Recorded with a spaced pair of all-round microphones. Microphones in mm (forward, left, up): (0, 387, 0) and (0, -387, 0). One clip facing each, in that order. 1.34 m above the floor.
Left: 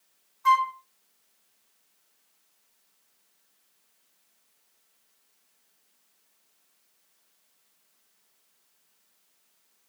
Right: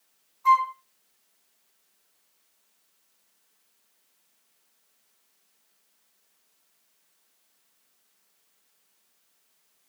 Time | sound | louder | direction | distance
0.5 | a flute | right 1 dB | 50° left (ahead or behind) | 0.7 m